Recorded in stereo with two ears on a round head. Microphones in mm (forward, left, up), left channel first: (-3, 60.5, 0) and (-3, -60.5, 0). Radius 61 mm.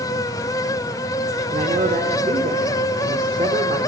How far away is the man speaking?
About 2 m.